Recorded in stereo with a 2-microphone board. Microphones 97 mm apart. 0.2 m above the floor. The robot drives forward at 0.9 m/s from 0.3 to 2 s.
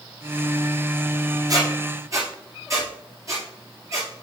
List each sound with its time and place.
1.5 s a squeak: 40° right (ahead or behind), 2 m; by 4.1 s 35° right (ahead or behind), 2.5 m